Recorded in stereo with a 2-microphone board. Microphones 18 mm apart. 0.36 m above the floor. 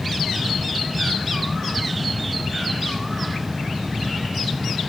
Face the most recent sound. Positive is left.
No sound to turn to.